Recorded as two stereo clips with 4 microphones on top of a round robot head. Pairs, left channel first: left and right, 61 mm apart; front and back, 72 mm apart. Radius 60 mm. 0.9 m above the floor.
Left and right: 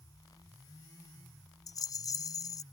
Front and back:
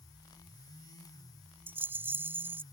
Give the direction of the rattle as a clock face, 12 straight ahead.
8 o'clock.